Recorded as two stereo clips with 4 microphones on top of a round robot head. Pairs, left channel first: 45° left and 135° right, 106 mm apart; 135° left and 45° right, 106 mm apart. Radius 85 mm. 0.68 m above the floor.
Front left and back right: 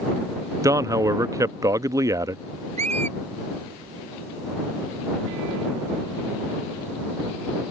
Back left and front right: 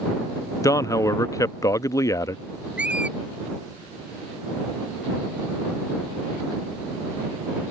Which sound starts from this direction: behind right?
A squeak, at 2.8 s.